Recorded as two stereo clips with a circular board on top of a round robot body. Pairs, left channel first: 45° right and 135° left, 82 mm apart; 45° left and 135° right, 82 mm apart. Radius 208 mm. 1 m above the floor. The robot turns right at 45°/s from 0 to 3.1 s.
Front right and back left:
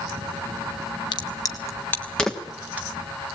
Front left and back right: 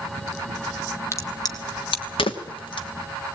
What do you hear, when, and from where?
1.1 s a crack: 15° right, 1.3 m; by 2.9 s 65° left, 1.3 m